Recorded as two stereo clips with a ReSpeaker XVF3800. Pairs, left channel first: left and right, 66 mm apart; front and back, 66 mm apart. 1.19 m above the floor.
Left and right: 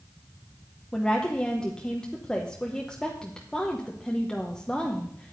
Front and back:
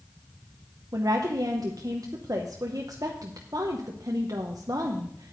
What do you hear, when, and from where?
0.9 s a woman speaking: 165° left, 0.8 m